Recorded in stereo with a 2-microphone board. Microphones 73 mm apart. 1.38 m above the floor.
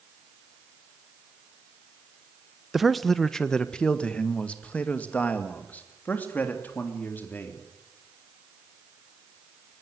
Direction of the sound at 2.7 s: Centre (ahead or behind).